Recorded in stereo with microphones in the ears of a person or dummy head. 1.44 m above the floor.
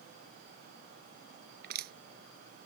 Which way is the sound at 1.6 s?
50° right (ahead or behind).